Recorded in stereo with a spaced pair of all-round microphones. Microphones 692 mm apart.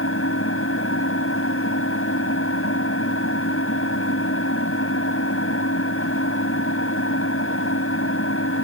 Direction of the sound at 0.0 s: 20° left (ahead or behind).